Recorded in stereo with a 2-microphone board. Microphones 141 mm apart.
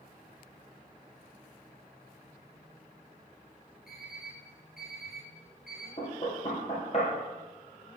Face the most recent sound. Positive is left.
turn(degrees=45)  # may be behind; listen again after turning